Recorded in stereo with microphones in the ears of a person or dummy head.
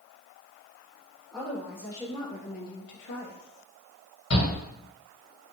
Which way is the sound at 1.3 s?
10° left (ahead or behind).